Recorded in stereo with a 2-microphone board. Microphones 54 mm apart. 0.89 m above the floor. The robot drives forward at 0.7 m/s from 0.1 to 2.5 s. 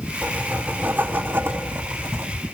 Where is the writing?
30° right (ahead or behind), 2.5 m; by 2.4 s 55° right (ahead or behind), 1.6 m.